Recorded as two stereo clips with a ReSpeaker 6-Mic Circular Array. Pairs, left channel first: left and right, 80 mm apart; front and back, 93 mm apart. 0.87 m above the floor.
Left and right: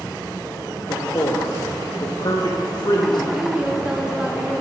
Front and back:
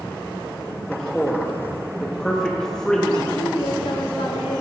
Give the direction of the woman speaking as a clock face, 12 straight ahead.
12 o'clock.